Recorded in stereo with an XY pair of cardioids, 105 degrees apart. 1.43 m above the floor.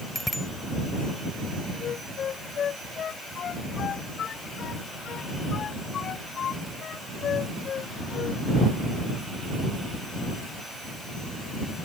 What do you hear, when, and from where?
0.1 s a bicycle bell: 5° left
1.8 s a flute: 55° left